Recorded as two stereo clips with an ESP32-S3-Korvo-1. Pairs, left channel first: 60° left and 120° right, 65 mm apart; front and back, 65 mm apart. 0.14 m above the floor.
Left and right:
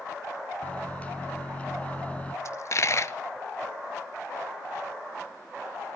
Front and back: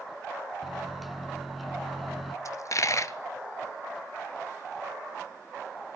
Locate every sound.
0.6 s a microwave: 95° left, 0.9 m
2.5 s a dropped coin: 25° left, 0.6 m